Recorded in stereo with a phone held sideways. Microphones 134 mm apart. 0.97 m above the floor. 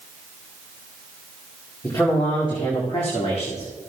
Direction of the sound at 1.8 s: 25° left (ahead or behind).